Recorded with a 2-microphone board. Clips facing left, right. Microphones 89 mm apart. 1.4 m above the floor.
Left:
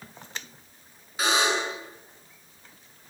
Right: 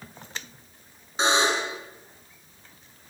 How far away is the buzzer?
About 9.5 m.